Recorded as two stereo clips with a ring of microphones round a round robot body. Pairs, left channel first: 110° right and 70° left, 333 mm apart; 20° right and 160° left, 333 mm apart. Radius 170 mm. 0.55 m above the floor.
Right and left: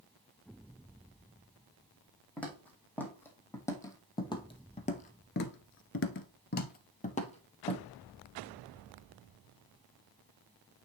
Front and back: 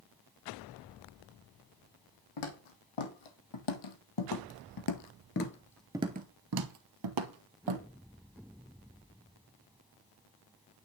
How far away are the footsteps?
About 2.5 m.